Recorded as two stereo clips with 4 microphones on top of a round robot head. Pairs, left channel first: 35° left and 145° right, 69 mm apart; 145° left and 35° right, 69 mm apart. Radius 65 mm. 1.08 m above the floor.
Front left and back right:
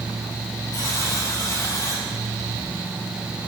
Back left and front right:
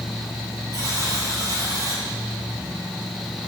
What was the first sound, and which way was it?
A buzzer, 5° right.